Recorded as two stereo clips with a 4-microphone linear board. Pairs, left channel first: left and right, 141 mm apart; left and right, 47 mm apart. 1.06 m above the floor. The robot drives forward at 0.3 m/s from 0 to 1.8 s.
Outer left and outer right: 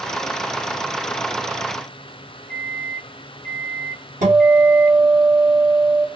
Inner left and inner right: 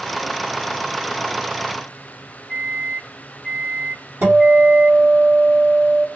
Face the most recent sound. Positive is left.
turn(degrees=-70)  # may be behind; listen again after turning